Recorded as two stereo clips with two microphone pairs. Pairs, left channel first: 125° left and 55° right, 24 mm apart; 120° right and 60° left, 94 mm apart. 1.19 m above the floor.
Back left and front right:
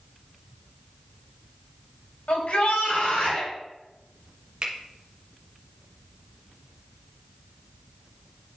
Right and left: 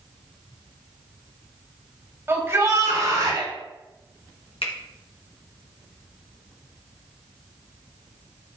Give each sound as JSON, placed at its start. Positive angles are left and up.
{"t": 2.3, "sound": "a shout", "azimuth_deg": 120, "distance_m": 3.0}
{"t": 4.6, "sound": "a finger snap", "azimuth_deg": -110, "distance_m": 1.2}